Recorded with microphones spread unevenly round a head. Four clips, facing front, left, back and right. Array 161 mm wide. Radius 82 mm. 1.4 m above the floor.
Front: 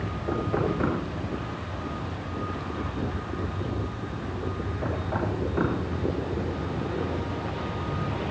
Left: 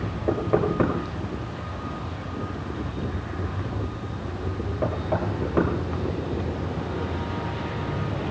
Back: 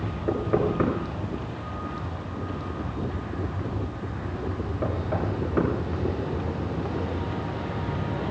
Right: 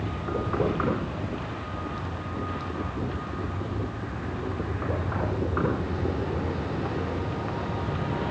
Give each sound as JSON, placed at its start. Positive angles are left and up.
{"t": 0.3, "sound": "knocking", "azimuth_deg": 120, "distance_m": 6.5}